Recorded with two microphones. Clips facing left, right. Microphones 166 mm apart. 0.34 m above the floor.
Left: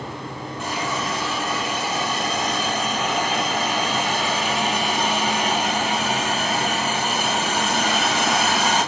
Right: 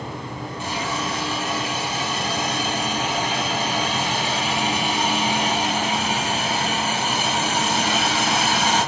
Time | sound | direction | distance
0.6 | a hiss | 45° left (ahead or behind) | 1.9 m